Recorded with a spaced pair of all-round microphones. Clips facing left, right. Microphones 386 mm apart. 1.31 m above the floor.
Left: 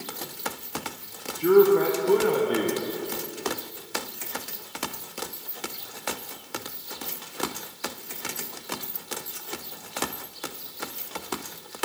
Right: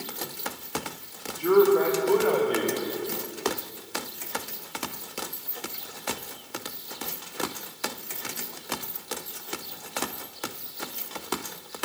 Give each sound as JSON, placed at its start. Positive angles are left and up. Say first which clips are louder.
{"t": 1.4, "sound": "a man speaking", "louder": "left 2 dB", "side_deg": 30, "distance_m": 1.0}